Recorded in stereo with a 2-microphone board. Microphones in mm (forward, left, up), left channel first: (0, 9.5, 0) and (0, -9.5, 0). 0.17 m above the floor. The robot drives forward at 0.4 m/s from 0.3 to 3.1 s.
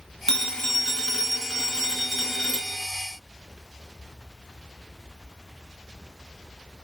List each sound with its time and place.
0.3 s a phone ringing: 30° left (ahead or behind), 1.1 m; by 2.9 s 20° left (ahead or behind), 1.7 m